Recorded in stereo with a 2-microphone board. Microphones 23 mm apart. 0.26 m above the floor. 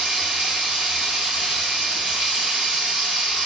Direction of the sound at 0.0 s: 70° right (ahead or behind).